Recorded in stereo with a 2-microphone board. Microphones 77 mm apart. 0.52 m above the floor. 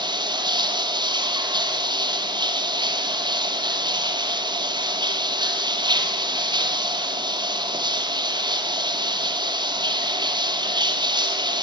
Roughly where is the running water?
Right.